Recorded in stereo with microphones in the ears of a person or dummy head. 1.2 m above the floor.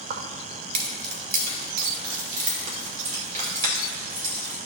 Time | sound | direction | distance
0.1 | keys jangling | 55° right (ahead or behind) | 0.9 m